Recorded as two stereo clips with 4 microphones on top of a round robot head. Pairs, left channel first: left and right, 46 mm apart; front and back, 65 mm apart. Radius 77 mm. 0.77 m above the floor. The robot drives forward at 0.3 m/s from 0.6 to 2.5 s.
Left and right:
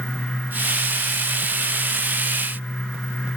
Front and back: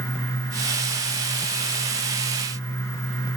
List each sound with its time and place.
Only background noise.